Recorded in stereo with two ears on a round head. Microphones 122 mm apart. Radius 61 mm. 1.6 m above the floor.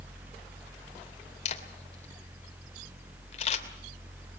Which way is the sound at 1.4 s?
50° left (ahead or behind).